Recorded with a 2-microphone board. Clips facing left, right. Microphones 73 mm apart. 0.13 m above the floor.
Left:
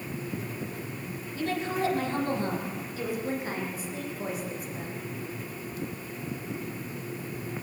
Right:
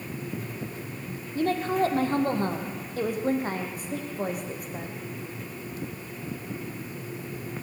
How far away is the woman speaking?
About 4.5 m.